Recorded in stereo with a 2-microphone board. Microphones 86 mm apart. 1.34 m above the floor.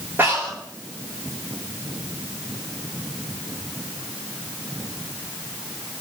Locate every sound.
0.2 s breathing: 25° right (ahead or behind), 6 m